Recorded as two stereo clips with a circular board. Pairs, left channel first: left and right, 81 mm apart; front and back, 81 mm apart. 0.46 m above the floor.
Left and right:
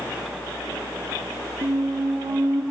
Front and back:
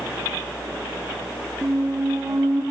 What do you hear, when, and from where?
1.6 s a squeak: 115° right, 0.9 m